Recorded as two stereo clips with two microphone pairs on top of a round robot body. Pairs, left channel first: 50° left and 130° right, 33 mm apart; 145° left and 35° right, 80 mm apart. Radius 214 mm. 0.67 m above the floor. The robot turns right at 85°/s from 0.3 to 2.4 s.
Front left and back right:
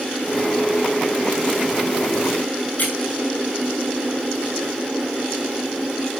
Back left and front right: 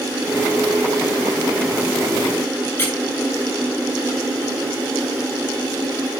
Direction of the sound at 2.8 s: 85° left.